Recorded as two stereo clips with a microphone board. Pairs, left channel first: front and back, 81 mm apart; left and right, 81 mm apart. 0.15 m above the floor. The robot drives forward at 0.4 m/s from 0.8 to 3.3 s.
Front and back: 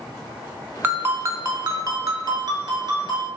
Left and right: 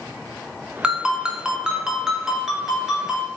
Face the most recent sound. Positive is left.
turn(degrees=-175)